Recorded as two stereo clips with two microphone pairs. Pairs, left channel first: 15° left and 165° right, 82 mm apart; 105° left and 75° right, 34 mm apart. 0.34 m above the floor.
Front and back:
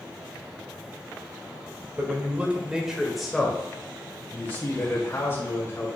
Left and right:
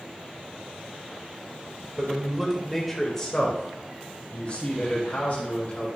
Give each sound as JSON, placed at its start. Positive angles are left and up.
{"t": 2.0, "sound": "a man speaking", "azimuth_deg": -125, "distance_m": 1.2}